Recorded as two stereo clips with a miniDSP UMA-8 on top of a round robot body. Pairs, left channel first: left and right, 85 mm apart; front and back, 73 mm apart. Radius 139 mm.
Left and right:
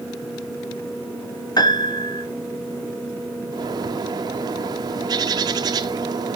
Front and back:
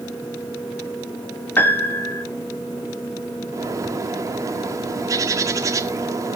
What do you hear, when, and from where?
1.6 s a piano: 60° left, 1.7 m
3.5 s a bird: 135° right, 0.9 m